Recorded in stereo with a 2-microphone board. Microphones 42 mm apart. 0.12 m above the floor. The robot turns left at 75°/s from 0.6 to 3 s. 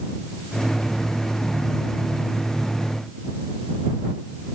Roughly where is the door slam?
No door slam in this recording.